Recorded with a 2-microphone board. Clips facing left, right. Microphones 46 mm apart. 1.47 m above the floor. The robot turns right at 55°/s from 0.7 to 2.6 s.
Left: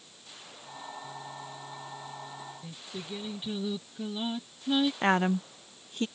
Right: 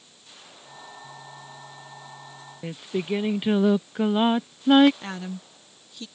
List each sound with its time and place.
2.6 s singing: 65° right (ahead or behind)
5.0 s a woman speaking: 45° left (ahead or behind)